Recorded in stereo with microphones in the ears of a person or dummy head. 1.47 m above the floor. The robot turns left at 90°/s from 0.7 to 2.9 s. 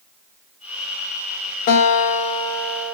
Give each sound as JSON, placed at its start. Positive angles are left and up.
{"t": 1.7, "sound": "a guitar", "azimuth_deg": 110, "distance_m": 0.7}